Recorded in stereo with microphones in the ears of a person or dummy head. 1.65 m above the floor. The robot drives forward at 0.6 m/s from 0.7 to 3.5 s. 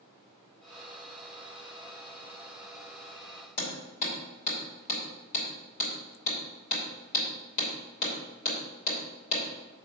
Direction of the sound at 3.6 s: 45° left (ahead or behind).